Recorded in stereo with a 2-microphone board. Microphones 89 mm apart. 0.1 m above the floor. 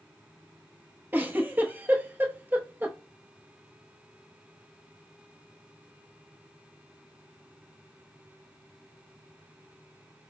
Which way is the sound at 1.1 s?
20° right (ahead or behind).